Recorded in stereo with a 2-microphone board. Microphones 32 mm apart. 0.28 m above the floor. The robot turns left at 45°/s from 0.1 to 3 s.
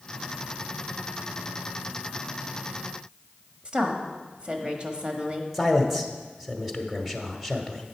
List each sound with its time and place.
3.6 s a woman speaking: 30° right (ahead or behind), 1.2 m
5.5 s a man speaking: 5° right (ahead or behind), 1.0 m